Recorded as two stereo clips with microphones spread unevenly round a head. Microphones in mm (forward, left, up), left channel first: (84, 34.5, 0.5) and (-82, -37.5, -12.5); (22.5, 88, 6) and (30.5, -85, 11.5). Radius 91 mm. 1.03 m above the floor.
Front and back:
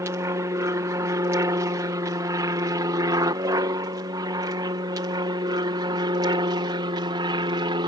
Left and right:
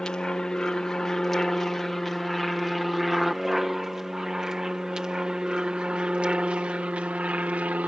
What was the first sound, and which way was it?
An aircraft, 170° left.